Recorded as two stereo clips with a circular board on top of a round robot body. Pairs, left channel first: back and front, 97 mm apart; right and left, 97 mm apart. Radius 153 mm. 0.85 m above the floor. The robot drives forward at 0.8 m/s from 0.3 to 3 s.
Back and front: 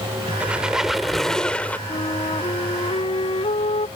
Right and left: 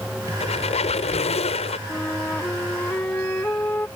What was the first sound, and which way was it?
A squeak, 80° right.